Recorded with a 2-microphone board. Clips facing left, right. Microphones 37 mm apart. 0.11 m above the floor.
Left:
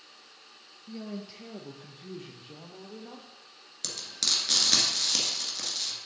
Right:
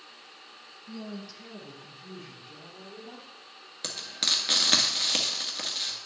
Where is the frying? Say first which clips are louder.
Right 2 dB; 25° right (ahead or behind), 1.7 m.